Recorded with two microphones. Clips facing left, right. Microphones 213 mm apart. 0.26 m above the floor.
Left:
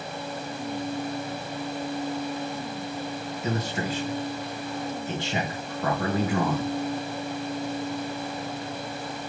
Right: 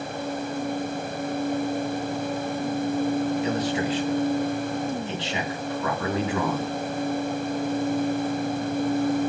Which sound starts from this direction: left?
A man speaking, at 3.4 s.